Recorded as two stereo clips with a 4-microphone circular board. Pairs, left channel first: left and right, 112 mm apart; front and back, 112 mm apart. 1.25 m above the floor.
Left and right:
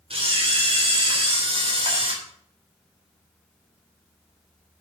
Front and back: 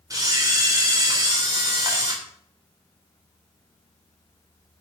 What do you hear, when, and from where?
0.1 s a camera shutter: 120° right, 3.5 m